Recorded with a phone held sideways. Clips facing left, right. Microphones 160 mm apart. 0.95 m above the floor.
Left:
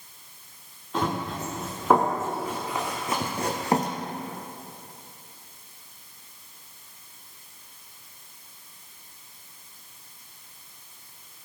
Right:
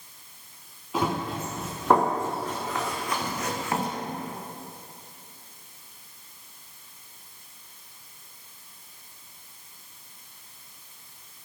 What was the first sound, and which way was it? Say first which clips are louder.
Running footsteps: right 1 dB; 5° right (ahead or behind).